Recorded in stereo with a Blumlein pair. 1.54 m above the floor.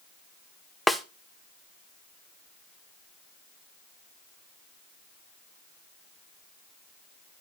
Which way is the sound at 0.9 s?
Straight ahead.